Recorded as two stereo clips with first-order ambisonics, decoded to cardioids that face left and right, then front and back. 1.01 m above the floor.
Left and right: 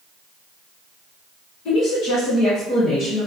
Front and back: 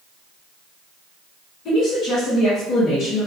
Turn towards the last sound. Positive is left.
turn(degrees=25)